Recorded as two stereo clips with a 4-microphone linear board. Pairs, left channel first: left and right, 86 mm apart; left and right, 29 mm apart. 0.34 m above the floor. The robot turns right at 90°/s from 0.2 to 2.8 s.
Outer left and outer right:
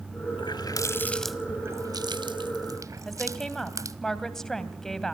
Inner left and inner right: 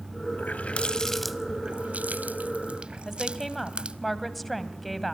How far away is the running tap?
About 1.2 m.